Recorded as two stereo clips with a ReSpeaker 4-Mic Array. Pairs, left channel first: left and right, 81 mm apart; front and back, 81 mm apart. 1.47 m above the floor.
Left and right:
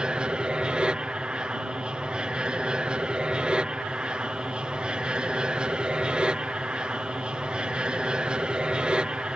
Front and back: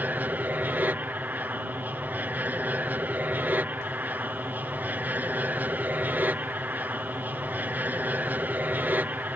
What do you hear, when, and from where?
0.0 s an aircraft: 150° right